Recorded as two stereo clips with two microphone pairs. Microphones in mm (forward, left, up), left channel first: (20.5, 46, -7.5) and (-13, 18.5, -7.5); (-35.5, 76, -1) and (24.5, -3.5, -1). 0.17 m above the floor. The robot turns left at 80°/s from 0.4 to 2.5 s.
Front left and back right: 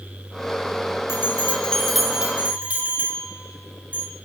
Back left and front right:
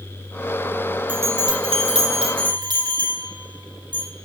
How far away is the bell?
About 5.5 m.